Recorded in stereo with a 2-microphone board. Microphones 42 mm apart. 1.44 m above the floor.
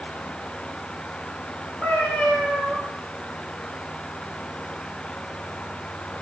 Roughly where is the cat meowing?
Left.